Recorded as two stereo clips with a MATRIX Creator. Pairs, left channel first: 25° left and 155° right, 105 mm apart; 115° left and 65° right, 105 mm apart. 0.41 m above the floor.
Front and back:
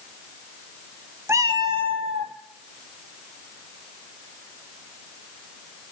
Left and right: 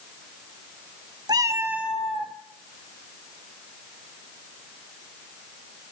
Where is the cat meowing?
100° right, 0.6 m; by 2.3 s 160° right, 1.2 m.